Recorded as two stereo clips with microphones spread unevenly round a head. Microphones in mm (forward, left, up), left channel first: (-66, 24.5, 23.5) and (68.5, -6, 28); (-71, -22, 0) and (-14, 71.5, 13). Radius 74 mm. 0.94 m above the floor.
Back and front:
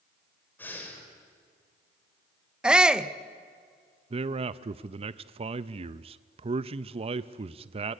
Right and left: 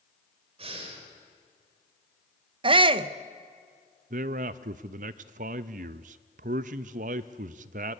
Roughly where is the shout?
Left.